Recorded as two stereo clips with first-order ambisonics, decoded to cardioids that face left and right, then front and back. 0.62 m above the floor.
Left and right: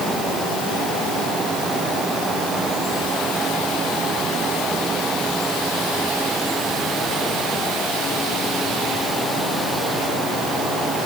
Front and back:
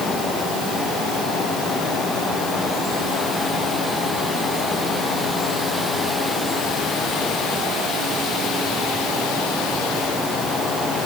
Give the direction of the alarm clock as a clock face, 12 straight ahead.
No alarm clock in this recording.